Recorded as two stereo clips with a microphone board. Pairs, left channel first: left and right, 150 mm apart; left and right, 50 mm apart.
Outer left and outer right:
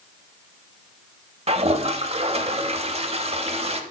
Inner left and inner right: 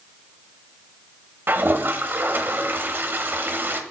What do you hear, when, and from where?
1.5 s a toilet flushing: 45° right (ahead or behind), 0.8 m